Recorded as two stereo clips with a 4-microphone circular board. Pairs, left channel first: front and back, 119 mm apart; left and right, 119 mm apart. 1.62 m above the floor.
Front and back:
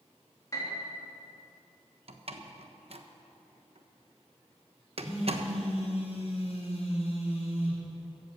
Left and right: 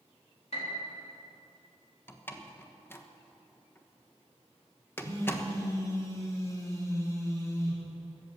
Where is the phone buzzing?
25° left, 4.5 m.